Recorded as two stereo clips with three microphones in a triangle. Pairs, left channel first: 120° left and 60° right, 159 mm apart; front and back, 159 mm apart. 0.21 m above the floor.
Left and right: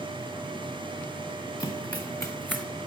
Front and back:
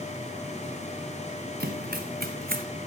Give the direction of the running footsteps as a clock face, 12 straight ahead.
6 o'clock.